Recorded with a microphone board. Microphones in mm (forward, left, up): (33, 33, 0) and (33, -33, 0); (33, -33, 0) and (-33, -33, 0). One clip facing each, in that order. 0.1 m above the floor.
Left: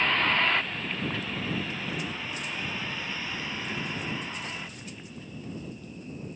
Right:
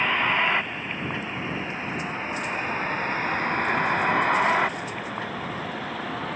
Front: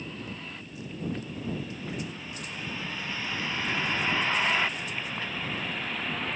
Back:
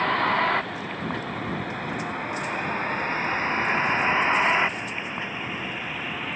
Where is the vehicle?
165° right; by 6.4 s 95° right.